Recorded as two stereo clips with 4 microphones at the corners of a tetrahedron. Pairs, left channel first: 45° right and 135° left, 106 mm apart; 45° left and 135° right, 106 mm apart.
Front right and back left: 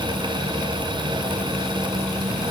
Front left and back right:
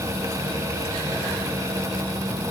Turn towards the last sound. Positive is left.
No sound to turn to.